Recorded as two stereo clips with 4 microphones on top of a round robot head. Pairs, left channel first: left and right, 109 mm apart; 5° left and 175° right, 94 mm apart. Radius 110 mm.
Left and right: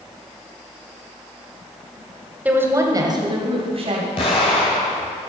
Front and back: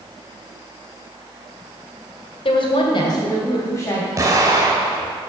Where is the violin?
No violin in this recording.